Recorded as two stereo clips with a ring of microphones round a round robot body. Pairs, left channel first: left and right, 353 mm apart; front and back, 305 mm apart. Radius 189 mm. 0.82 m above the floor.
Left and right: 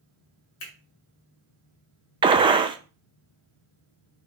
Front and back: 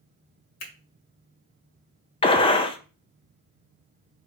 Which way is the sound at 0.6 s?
35° left.